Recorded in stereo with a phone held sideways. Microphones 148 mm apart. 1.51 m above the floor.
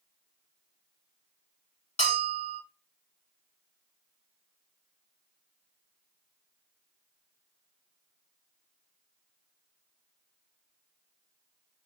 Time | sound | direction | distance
2.0 | a bell | 45° left (ahead or behind) | 1.9 m